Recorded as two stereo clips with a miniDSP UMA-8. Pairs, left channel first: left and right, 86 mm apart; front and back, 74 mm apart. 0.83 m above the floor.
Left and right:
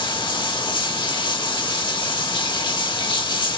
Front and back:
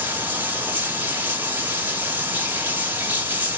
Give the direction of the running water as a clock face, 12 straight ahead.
8 o'clock.